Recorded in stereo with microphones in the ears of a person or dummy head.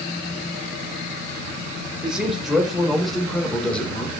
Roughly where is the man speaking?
Centre.